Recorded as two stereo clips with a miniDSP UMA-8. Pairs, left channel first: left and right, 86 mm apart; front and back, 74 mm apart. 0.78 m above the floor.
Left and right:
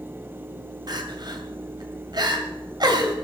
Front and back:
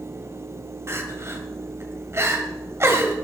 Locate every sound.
0.9 s crying: 125° right, 2 m